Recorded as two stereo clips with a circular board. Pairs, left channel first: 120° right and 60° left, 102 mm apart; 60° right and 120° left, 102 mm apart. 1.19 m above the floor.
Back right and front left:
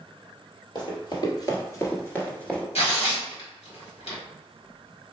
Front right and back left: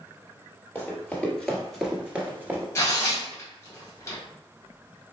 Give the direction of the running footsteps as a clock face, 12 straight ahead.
4 o'clock.